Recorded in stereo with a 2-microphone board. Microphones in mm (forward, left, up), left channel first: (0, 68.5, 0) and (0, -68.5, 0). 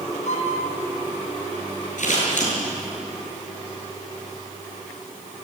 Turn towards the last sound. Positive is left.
turn(degrees=70)  # may be behind; listen again after turning